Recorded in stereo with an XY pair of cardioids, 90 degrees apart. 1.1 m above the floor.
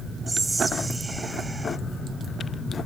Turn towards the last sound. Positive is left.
turn(degrees=-15)